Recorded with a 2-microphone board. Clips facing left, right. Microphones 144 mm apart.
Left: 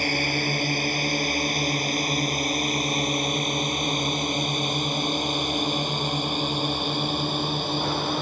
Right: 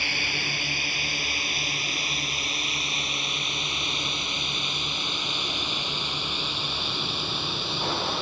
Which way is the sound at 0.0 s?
40° left (ahead or behind).